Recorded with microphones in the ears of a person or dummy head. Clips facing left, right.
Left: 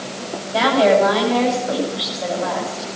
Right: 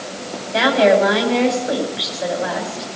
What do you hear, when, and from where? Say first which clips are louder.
0.5 s a woman speaking: right 1 dB; 25° right (ahead or behind), 7.5 m